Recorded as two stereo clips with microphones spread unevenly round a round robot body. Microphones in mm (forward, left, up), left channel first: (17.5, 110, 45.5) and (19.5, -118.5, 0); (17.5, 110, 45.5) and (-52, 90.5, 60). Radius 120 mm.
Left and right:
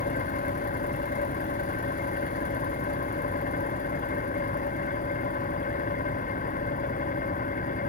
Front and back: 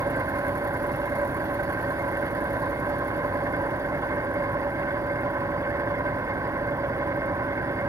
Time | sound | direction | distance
0.0 | an engine running | 150° left | ?